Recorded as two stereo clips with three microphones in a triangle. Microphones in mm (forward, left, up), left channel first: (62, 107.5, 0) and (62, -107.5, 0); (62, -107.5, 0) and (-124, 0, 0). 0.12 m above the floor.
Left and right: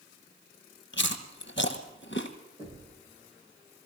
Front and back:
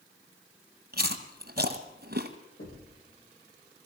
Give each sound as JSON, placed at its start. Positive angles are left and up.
{"t": 0.9, "sound": "chewing", "azimuth_deg": 110, "distance_m": 1.2}
{"t": 2.6, "sound": "knocking", "azimuth_deg": -25, "distance_m": 6.5}